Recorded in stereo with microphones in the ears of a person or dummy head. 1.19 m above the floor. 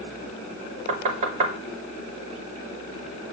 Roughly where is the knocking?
Right.